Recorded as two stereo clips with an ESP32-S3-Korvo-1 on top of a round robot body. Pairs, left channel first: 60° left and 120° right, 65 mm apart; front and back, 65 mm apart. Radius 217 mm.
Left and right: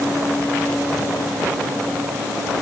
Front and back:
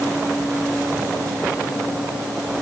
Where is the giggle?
I don't hear a giggle.